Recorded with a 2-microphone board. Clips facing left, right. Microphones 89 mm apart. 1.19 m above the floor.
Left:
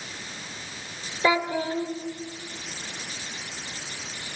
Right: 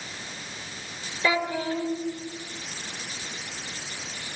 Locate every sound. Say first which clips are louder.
1.2 s a child speaking: left 2 dB; 20° left (ahead or behind), 4 m